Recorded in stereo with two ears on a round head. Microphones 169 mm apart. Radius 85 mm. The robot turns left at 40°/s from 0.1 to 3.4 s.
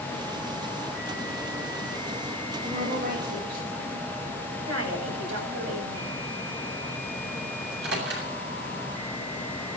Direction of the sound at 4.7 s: 70° right (ahead or behind).